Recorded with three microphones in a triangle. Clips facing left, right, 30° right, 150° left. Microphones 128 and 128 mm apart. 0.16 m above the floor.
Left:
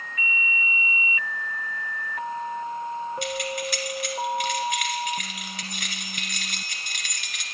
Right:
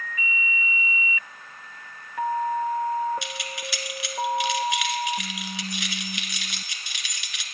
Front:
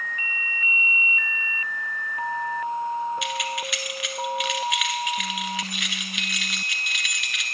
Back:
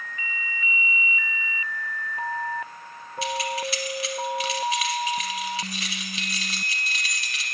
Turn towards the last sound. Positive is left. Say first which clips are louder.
# left 7 dB, back 1 dB
turn(degrees=105)